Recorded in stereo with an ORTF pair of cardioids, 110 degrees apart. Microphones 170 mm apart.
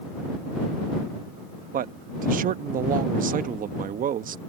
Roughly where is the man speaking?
Ahead right.